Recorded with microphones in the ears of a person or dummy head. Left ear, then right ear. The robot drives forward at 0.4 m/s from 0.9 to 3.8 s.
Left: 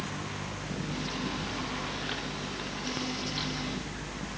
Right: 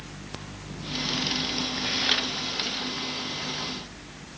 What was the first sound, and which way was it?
Only background noise.